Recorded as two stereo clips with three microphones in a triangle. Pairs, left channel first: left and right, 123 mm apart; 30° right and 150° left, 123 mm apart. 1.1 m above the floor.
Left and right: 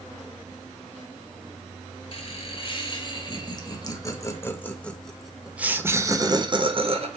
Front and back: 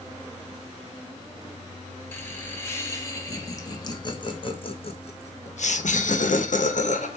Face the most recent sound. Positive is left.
turn(degrees=-50)